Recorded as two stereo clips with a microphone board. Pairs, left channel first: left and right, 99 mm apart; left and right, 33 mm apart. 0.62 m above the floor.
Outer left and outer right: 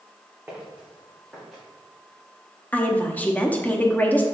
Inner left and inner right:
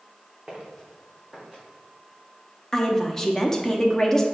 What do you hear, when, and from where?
0.5 s footsteps: 20° right (ahead or behind), 2 m; by 1.6 s 5° right (ahead or behind), 2.5 m
2.7 s a woman speaking: 15° left (ahead or behind), 0.6 m